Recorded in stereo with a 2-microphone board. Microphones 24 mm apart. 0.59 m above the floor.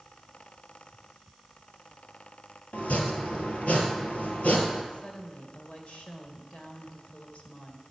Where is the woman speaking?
60° left (ahead or behind), 2 m.